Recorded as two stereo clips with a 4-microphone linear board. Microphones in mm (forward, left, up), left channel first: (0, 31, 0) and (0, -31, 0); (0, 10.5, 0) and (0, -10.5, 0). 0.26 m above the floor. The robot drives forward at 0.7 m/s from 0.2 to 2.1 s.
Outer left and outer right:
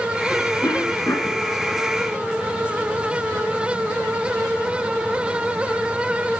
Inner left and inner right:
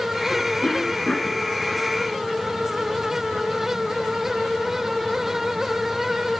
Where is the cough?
55° left (ahead or behind), 2.5 m; by 1.4 s 65° left (ahead or behind), 2.5 m.